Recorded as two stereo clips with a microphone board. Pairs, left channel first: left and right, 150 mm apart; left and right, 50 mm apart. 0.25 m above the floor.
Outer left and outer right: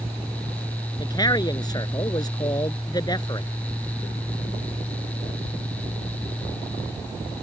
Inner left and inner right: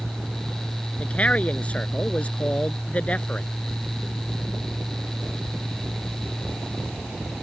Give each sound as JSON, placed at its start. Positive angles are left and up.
{"t": 1.0, "sound": "a man speaking", "side_deg": 25}